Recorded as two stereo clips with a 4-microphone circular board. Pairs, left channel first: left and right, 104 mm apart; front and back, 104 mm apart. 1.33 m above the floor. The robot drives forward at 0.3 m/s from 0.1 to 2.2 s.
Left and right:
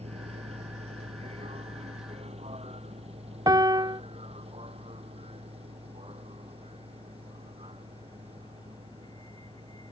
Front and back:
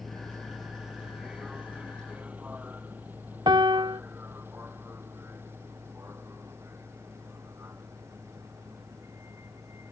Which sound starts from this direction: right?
A vehicle, at 0.0 s.